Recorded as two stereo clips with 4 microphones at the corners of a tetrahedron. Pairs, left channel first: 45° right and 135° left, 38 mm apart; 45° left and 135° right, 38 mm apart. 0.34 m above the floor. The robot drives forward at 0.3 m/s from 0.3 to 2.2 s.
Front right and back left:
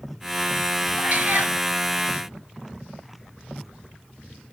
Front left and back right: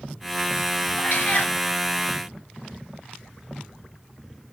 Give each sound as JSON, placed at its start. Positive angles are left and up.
{"t": 1.0, "sound": "a cat meowing", "azimuth_deg": 90, "distance_m": 1.4}